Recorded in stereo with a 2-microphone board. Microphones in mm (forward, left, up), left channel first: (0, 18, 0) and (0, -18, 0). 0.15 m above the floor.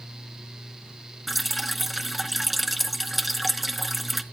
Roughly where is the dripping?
Centre.